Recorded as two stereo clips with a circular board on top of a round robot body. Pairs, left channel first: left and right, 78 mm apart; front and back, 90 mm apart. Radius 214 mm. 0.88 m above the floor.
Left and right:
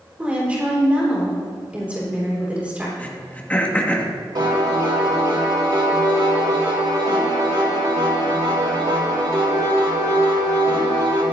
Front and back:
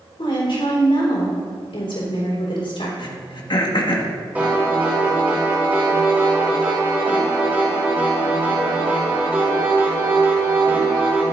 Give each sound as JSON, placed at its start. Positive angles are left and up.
{"t": 0.2, "sound": "a woman speaking", "azimuth_deg": -15, "distance_m": 4.0}
{"t": 3.0, "sound": "throat clearing", "azimuth_deg": 20, "distance_m": 1.8}
{"t": 4.3, "sound": "a piano", "azimuth_deg": -110, "distance_m": 4.0}